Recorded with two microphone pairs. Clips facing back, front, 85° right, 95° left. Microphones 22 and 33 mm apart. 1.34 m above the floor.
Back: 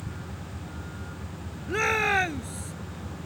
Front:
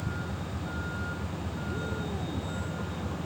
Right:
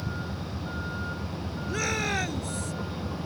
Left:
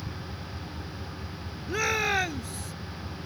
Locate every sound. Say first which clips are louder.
0.0 s a vehicle: front 4 dB, right 5 dB; 60° right
1.7 s a shout: back 14 dB, left 3 dB; 175° left